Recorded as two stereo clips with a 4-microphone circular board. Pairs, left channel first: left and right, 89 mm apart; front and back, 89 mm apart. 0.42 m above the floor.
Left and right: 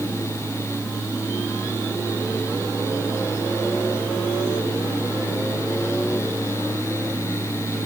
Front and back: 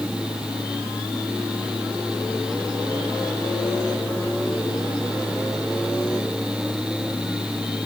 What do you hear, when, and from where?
Only background noise.